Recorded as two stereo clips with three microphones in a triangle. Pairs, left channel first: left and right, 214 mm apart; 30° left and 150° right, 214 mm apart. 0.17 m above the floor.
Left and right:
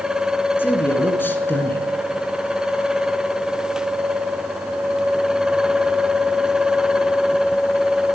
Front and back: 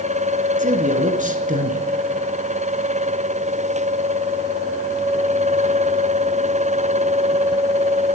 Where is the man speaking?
170° left, 2 m.